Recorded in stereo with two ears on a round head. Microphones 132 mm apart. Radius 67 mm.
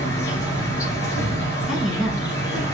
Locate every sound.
0.0 s an insect: 20° left (ahead or behind), 1.8 m
1.7 s a woman speaking: centre (ahead or behind), 3.5 m